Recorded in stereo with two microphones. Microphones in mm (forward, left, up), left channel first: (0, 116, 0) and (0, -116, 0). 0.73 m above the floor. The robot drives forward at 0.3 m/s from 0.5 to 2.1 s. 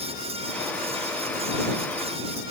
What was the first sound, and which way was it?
Only background noise.